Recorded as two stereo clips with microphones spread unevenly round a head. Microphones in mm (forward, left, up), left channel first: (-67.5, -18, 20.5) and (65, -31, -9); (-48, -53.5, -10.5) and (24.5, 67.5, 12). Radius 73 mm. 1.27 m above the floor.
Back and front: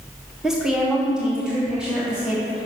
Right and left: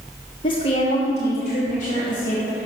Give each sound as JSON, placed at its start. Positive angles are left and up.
{"t": 0.4, "sound": "a woman speaking", "azimuth_deg": -80, "distance_m": 0.8}